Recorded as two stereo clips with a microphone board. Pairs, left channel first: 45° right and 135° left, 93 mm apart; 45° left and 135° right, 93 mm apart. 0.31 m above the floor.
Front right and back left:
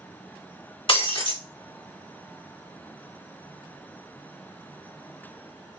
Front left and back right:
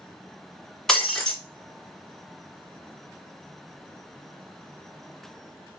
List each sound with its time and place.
0.9 s breaking glass: 40° right, 1.5 m